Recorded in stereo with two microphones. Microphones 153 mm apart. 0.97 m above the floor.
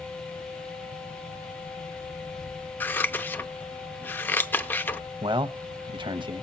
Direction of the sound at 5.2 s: 35° right (ahead or behind).